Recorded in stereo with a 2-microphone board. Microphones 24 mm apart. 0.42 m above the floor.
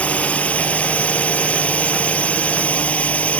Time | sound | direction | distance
0.0 | a drone | 65° left (ahead or behind) | ?